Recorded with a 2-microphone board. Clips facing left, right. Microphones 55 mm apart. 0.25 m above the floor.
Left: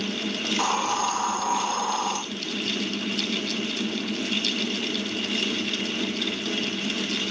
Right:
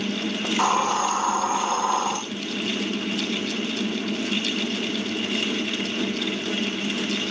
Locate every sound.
0.4 s a hiss: 15° right (ahead or behind), 4.5 m